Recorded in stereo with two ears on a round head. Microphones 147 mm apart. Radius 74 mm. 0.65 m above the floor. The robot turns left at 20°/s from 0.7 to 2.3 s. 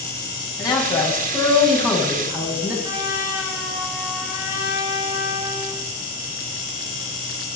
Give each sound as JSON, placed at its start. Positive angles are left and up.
{"t": 0.6, "sound": "a man speaking", "azimuth_deg": 25, "distance_m": 5.5}
{"t": 2.8, "sound": "a trumpet", "side_deg": -20, "distance_m": 5.0}